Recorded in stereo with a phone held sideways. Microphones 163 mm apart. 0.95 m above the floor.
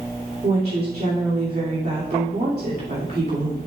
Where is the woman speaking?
75° right (ahead or behind), 2.5 m.